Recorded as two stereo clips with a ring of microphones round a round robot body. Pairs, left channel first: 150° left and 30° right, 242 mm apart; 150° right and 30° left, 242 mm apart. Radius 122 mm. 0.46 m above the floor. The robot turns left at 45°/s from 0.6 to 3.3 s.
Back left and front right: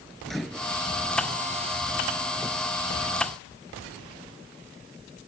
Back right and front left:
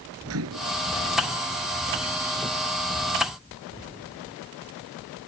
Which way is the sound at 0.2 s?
60° left.